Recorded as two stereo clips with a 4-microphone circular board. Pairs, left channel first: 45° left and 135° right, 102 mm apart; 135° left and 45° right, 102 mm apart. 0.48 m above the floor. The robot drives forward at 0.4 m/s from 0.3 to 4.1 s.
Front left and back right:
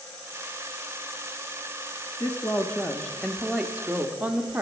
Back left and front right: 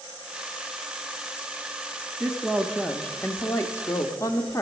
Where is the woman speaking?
25° left, 0.7 m; by 4.6 s 160° left, 0.8 m.